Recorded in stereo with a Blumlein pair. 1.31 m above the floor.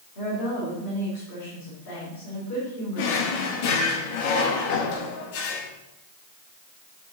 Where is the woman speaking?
50° left, 3.5 m.